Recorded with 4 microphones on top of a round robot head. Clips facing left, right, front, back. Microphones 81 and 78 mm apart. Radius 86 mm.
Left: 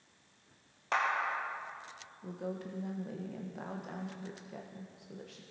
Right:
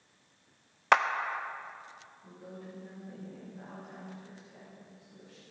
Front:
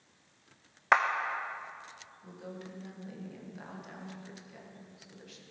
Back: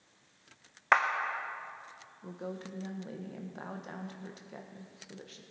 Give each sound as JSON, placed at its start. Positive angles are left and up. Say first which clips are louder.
{"t": 0.9, "sound": "a clap", "louder": "right 8 dB, front 1 dB", "azimuth_deg": -85, "distance_m": 0.5}
{"t": 2.2, "sound": "a woman speaking", "louder": "left 8 dB, back 4 dB", "azimuth_deg": 135, "distance_m": 1.3}